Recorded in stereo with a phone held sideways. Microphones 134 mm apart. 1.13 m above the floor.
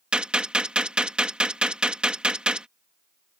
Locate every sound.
0.1 s a gunshot: 5° right (ahead or behind)